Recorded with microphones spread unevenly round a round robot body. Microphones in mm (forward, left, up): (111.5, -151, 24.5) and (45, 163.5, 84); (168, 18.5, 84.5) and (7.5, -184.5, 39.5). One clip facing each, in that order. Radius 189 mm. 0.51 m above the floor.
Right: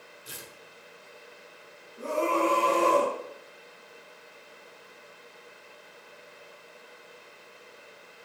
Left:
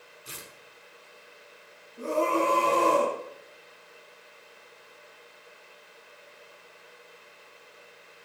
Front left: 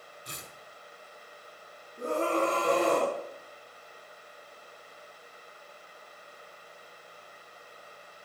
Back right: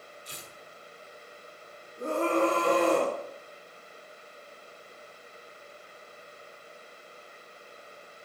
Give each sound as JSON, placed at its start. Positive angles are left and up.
{"t": 0.2, "sound": "tearing paper", "azimuth_deg": 25, "distance_m": 5.0}
{"t": 2.0, "sound": "a scream", "azimuth_deg": 125, "distance_m": 4.5}